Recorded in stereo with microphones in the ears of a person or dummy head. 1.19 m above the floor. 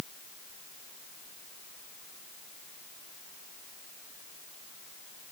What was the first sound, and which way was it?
Only background noise.